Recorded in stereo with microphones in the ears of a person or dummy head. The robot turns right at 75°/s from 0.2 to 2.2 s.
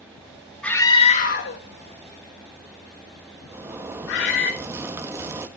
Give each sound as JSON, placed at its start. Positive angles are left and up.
{"t": 0.6, "sound": "a scream", "side_deg": 0, "distance_m": 3.0}
{"t": 3.5, "sound": "a zipper", "side_deg": -20, "distance_m": 1.2}